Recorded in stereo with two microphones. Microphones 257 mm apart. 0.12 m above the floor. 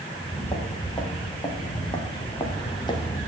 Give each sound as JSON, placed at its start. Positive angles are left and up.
{"t": 0.1, "sound": "footsteps", "side_deg": 20, "distance_m": 5.0}